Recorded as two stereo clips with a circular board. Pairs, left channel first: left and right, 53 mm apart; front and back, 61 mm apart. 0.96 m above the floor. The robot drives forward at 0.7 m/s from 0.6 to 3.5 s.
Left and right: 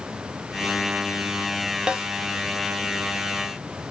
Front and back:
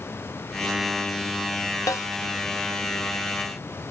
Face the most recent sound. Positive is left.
turn(degrees=-130)